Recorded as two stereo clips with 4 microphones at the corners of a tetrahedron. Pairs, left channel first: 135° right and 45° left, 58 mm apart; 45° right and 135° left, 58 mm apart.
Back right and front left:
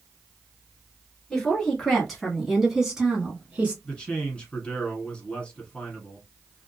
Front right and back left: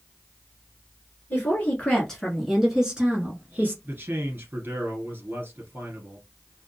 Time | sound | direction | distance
1.3 | a woman speaking | 70° right | 1.3 m
3.9 | a man speaking | 160° left | 1.4 m